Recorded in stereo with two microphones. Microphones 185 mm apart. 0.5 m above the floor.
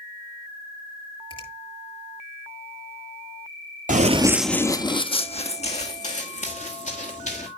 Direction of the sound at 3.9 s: 45° right (ahead or behind).